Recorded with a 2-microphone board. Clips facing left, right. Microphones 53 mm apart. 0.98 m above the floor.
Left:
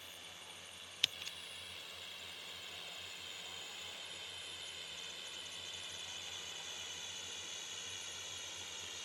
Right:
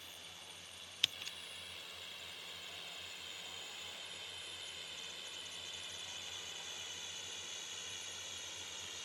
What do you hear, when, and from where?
0.0 s a drone: 15° left (ahead or behind); by 9.1 s 20° left (ahead or behind)